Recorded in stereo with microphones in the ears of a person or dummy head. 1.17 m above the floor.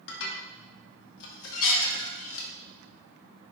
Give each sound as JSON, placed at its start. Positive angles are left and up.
{"t": 0.1, "sound": "dishes clattering", "side_deg": 75, "distance_m": 1.2}